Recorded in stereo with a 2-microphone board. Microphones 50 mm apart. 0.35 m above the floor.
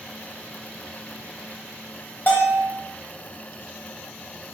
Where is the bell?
40° left (ahead or behind), 0.7 m.